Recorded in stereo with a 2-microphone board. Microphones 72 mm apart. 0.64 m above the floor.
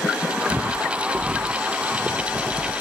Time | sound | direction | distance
0.5 | footsteps | 25° right (ahead or behind) | ?